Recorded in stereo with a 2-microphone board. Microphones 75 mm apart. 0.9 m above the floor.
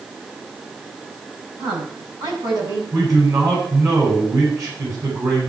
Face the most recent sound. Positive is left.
turn(degrees=-55)  # may be behind; listen again after turning